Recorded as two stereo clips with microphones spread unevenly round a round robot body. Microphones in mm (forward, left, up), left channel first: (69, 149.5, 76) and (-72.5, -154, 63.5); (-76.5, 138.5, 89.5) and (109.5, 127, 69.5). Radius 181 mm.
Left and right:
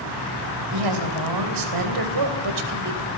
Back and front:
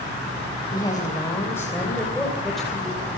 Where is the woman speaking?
110° right, 3.5 m; by 3.1 s 90° right, 3.5 m.